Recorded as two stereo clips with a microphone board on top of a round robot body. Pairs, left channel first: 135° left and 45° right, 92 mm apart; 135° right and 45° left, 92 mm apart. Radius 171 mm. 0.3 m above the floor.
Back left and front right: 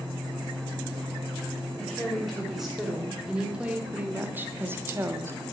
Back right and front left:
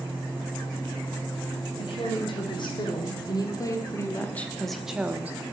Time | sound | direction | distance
1.8 | a woman speaking | 135° right | 2.5 m